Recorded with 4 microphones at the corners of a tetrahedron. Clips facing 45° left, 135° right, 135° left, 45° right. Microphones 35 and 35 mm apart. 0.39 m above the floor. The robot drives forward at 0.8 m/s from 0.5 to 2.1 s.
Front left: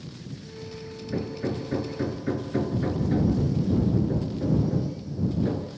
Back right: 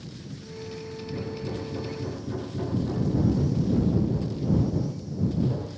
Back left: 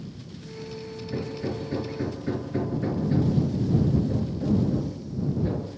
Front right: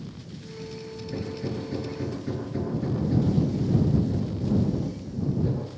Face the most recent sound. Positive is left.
turn(degrees=70)